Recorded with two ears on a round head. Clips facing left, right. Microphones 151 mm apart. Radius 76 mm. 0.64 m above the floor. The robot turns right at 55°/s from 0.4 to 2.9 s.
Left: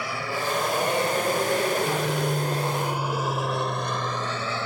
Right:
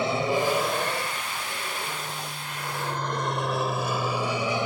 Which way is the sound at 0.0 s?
20° right (ahead or behind).